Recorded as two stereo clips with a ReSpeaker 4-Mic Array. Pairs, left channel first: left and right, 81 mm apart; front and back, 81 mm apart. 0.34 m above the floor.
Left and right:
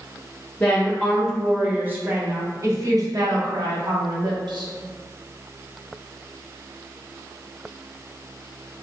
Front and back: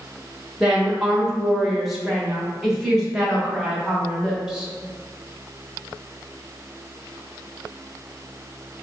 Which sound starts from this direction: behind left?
A woman speaking, at 0.6 s.